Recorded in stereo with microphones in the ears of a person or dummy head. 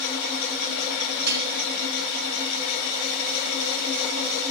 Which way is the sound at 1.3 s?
50° right (ahead or behind).